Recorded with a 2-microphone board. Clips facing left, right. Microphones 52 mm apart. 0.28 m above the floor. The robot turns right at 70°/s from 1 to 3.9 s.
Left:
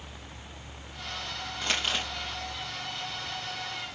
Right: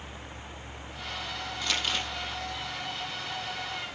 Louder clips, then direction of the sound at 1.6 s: Left 1 dB; 35° left (ahead or behind).